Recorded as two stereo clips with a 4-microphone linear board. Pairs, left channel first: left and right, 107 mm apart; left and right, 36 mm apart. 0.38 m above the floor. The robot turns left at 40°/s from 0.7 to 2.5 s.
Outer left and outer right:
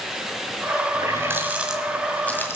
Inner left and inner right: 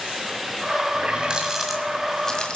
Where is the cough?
I don't hear a cough.